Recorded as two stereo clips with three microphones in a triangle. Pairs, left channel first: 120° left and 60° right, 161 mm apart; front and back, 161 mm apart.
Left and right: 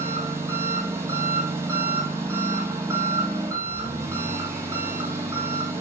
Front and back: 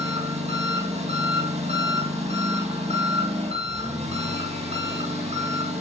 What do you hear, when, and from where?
0.0 s an engine running: 130° right, 3.5 m